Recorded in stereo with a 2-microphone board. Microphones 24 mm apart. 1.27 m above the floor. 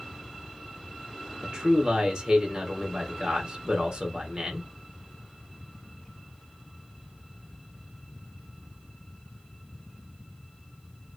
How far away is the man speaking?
About 1.4 m.